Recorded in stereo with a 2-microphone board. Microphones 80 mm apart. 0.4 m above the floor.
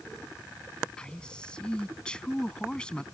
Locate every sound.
1.0 s a man speaking: 10° left (ahead or behind)